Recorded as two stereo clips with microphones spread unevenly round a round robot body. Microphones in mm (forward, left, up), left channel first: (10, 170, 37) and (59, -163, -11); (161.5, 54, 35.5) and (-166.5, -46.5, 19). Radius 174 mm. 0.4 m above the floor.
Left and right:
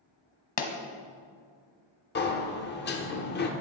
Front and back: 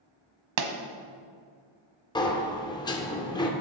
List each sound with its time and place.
0.6 s a pop: 150° left, 1.1 m
2.1 s a sliding door: 80° left, 1.1 m